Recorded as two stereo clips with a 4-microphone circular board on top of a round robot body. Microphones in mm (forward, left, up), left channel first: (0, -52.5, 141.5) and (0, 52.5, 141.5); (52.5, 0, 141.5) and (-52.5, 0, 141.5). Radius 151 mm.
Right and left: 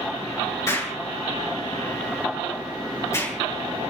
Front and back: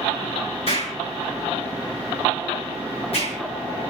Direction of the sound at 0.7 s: 25° right.